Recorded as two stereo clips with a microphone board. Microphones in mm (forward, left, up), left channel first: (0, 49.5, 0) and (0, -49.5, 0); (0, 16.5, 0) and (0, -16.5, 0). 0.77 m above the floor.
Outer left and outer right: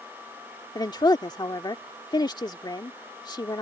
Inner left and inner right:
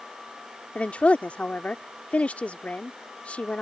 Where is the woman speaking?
50° left (ahead or behind).